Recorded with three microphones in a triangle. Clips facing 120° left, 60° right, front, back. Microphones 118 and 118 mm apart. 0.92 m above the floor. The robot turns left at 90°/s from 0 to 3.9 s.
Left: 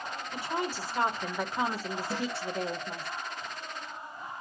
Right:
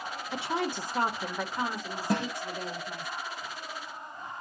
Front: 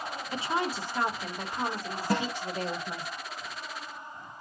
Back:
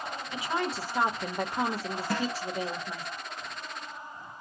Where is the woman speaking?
50° right, 1.0 m; by 3.1 s 55° left, 1.0 m.